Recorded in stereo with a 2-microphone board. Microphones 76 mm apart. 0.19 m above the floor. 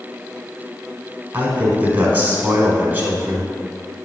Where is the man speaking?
25° right (ahead or behind), 1.3 m.